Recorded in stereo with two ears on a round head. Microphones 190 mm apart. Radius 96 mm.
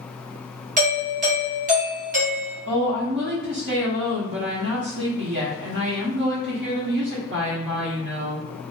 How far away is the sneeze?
I don't hear a sneeze.